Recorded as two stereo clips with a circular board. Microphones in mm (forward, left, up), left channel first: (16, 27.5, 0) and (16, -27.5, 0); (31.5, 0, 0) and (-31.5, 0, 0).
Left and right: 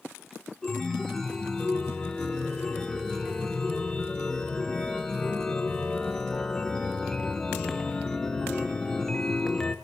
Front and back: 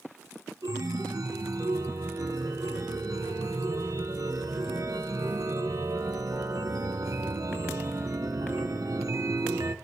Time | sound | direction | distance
0.6 | a chime | 170° left | 0.9 m